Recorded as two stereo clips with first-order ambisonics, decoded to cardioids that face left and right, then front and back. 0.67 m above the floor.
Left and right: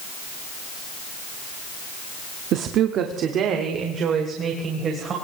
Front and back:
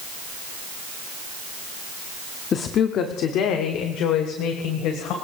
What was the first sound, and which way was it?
A woman speaking, 60° right.